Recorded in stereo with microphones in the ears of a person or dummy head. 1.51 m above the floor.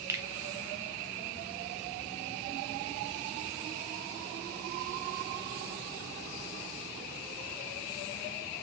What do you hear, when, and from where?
0.1 s a finger snap: 20° right (ahead or behind), 0.6 m